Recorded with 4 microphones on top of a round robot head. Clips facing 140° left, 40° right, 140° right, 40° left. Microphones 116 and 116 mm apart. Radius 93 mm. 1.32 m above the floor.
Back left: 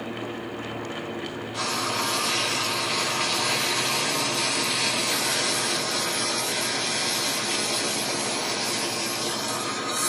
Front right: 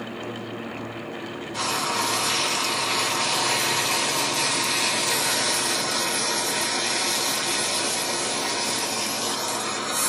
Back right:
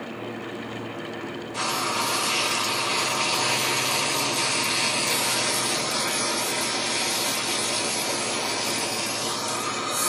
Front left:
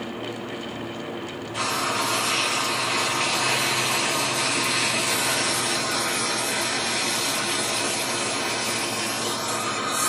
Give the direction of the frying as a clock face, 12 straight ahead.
3 o'clock.